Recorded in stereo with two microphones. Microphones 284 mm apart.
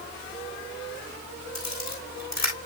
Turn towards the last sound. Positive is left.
turn(degrees=70)  # may be behind; listen again after turning